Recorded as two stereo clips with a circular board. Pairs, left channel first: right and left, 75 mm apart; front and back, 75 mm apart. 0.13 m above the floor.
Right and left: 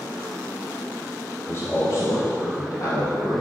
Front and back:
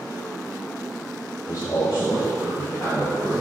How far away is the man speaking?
About 1.7 m.